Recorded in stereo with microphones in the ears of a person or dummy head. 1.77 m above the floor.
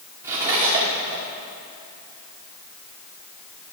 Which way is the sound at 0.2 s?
15° right (ahead or behind).